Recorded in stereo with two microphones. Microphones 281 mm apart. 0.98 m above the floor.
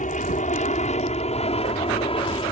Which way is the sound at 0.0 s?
25° left (ahead or behind).